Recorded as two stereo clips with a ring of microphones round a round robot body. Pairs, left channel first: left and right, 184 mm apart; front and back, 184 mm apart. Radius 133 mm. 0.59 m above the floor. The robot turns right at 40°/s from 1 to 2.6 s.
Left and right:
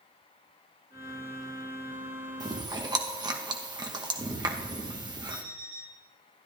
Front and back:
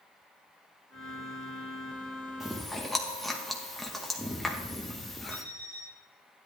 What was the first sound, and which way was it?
Chewing, 95° right.